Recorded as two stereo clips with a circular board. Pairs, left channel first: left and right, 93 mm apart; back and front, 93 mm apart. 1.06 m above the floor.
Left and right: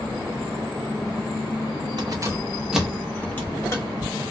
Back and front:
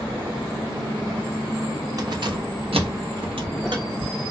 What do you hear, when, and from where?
2.0 s keys jangling: 50° right, 0.6 m; by 4.1 s 40° left, 1.1 m